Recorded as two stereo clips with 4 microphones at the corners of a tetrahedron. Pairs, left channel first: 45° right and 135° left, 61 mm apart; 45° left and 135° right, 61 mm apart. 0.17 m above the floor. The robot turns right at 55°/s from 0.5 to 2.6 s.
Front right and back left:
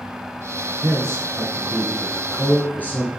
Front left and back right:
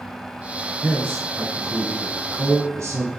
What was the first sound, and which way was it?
A man speaking, 160° left.